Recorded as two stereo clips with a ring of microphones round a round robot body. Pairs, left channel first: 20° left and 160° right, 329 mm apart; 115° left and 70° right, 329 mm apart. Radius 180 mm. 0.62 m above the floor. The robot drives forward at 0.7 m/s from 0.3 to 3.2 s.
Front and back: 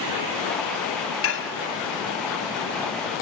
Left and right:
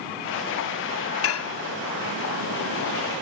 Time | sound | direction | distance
1.2 | dishes clattering | 65° left | 0.8 m